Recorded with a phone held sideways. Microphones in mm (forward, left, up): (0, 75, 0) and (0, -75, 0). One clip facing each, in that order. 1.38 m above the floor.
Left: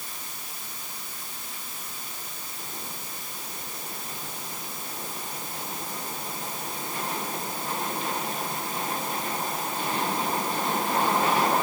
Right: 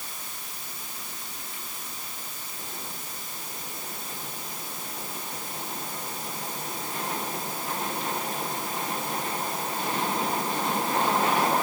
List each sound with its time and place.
Only background noise.